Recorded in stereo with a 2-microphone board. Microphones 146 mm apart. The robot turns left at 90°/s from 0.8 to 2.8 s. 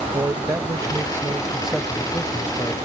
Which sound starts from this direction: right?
A man speaking, at 0.1 s.